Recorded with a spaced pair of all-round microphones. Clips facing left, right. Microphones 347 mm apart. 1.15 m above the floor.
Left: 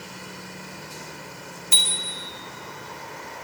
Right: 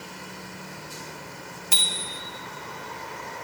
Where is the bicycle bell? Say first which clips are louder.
Even; 80° right, 2.5 m.